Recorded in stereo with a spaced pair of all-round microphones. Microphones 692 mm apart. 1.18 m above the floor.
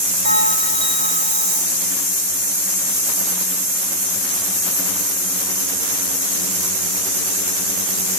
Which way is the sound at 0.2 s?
80° right.